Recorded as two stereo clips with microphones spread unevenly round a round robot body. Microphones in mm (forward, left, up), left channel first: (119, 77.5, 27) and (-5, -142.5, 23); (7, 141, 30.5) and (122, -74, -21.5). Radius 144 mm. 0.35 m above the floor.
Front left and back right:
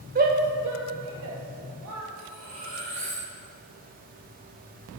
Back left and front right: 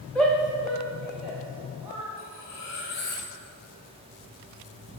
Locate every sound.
0.1 s a shout: 140° right, 0.9 m
2.2 s cutlery clinking: 175° left, 2.5 m